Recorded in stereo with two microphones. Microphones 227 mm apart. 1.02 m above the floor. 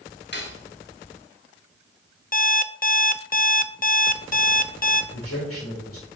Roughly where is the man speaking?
Left.